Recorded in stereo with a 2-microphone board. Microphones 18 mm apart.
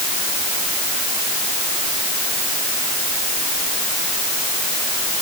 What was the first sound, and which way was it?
Only background noise.